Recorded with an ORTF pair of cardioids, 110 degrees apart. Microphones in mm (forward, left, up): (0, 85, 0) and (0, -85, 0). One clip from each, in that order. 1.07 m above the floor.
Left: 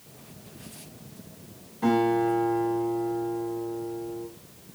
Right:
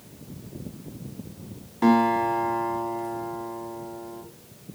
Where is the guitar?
65° right, 1.2 m.